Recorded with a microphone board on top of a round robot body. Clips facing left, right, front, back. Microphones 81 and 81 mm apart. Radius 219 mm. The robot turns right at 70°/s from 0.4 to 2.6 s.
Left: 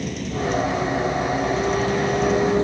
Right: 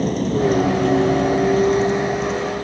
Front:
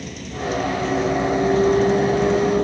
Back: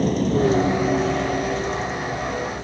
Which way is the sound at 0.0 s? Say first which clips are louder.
Right 7 dB, back 10 dB; 135° right.